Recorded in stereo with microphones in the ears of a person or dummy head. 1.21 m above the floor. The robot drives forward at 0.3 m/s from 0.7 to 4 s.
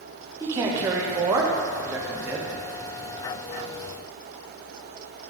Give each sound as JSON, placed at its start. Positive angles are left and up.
{"t": 0.4, "sound": "a man speaking", "side_deg": -30, "distance_m": 1.0}